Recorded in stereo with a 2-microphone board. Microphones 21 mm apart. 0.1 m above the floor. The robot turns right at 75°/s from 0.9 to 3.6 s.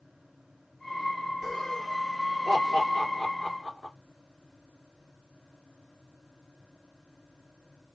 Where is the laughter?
5° right (ahead or behind), 2 m; by 3.9 s 15° left (ahead or behind), 2 m.